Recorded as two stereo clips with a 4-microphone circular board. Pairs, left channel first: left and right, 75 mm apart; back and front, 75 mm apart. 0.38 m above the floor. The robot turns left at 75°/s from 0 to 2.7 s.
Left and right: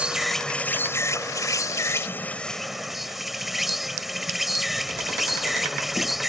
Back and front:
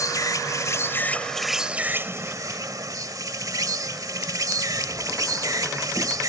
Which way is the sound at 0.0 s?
160° right.